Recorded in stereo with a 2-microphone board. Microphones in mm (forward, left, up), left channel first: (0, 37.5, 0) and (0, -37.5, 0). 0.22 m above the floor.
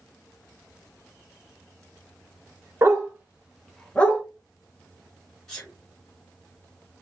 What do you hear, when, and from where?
2.8 s a dog barking: 45° right (ahead or behind), 1.0 m; by 4.2 s 30° left (ahead or behind), 0.9 m
5.5 s a sneeze: 10° left (ahead or behind), 1.7 m